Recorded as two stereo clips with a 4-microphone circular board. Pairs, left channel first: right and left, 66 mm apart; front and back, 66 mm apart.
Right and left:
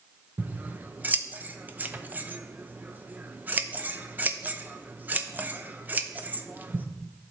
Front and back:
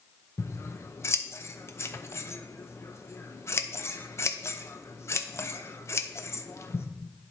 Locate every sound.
0.4 s scissors: 35° left, 0.6 m